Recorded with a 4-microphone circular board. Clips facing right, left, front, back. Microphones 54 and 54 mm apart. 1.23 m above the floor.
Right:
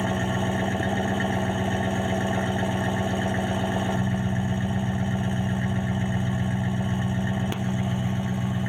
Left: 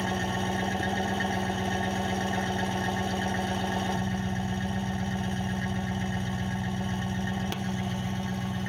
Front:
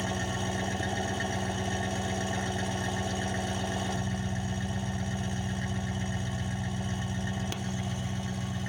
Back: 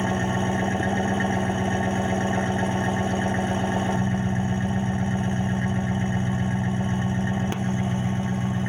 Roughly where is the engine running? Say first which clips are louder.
Right 4 dB, back 8 dB; behind right.